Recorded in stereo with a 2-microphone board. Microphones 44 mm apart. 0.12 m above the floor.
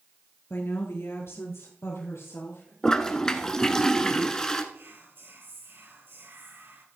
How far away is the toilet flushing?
About 1.1 m.